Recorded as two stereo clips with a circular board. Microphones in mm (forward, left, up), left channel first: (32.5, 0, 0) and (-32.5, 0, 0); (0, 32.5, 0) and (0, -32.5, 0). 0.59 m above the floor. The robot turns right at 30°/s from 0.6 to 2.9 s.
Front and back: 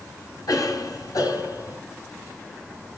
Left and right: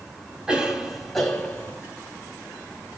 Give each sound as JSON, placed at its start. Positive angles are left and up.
{"t": 0.5, "sound": "a cough", "azimuth_deg": -15, "distance_m": 3.5}